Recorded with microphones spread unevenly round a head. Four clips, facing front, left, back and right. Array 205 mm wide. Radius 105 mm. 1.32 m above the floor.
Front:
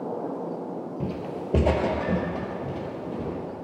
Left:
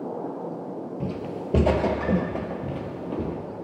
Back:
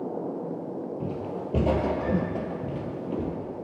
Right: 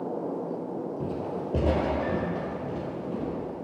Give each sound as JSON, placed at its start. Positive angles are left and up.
{"t": 1.0, "sound": "footsteps", "azimuth_deg": 35, "distance_m": 1.5}